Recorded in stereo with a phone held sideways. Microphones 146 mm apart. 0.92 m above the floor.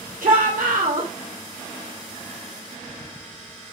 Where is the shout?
80° right, 3.5 m.